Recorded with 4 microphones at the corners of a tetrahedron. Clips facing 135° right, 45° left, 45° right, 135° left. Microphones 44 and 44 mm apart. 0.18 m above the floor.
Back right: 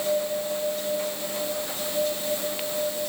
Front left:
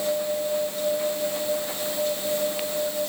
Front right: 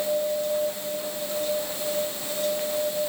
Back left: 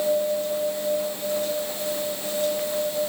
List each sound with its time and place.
Only background noise.